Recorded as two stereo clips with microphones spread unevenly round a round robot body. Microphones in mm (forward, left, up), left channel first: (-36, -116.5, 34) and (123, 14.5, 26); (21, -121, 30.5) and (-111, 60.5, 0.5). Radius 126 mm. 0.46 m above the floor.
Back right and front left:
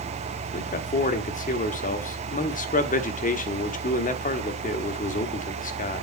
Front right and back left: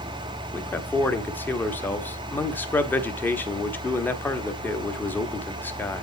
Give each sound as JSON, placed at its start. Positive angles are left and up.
{"t": 0.5, "sound": "a man speaking", "azimuth_deg": -140, "distance_m": 1.0}